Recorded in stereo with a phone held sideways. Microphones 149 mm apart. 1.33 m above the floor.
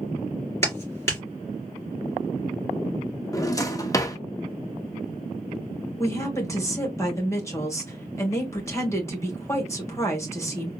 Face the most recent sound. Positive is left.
turn(degrees=20)  # may be behind; listen again after turning